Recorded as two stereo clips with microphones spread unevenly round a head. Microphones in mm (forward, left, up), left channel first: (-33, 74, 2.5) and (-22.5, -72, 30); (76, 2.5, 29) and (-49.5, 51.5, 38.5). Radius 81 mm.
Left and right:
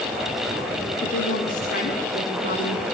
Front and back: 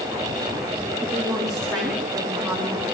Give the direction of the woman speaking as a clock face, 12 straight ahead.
10 o'clock.